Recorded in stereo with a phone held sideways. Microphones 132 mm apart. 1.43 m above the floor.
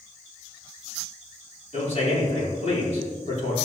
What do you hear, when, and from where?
1.7 s a man speaking: 60° left (ahead or behind), 4.5 m